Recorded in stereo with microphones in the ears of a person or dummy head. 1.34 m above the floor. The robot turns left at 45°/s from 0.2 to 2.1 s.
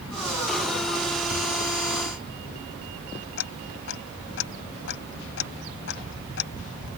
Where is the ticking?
75° left (ahead or behind).